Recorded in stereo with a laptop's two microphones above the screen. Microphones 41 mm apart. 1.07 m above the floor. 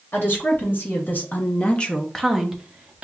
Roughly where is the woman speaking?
Left.